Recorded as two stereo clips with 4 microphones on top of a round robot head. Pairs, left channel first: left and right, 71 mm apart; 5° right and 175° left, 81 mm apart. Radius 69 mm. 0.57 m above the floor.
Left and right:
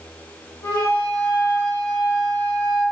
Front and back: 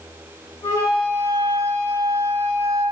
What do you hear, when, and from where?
0.6 s a flute: 45° left, 1.8 m